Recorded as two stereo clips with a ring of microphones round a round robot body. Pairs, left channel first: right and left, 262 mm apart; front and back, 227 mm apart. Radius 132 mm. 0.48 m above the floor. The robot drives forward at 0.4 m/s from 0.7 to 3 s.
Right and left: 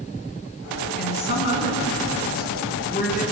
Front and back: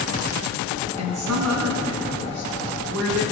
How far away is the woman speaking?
About 6 m.